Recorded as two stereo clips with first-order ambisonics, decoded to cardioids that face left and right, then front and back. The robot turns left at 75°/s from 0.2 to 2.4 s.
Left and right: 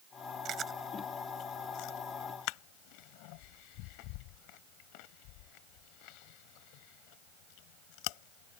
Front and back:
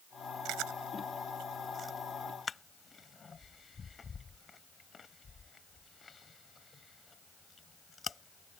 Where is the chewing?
140° right; by 8.6 s 75° left.